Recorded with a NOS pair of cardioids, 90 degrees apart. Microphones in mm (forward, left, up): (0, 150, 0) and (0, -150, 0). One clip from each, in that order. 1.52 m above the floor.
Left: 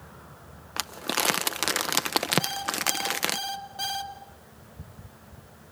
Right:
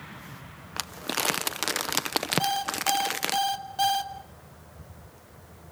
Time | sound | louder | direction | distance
0.8 | crumpling | left 2 dB | 10° left | 0.6 m
2.4 | an alarm clock | right 2 dB | 30° right | 2.5 m